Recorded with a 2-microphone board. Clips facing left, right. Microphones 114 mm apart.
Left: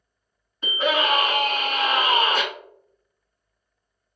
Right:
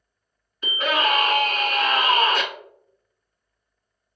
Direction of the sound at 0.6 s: 25° left (ahead or behind).